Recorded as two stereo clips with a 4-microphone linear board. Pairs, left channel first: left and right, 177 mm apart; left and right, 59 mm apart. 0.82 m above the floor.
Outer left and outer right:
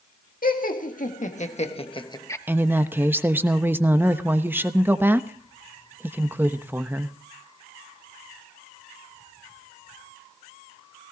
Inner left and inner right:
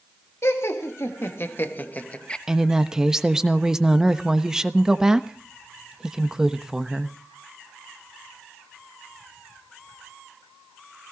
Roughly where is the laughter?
Left.